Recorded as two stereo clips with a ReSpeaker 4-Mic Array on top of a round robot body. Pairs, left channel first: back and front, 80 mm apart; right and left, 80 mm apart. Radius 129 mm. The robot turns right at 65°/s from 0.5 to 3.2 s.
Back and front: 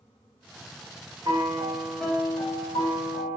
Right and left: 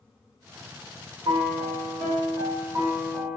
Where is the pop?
I don't hear a pop.